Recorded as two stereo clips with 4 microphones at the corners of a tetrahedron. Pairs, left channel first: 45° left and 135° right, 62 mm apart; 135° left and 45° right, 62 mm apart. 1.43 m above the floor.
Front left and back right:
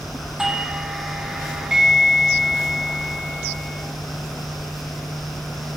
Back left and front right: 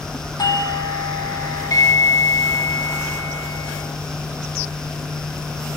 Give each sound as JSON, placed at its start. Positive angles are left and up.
{"t": 0.4, "sound": "a doorbell", "azimuth_deg": 145, "distance_m": 4.0}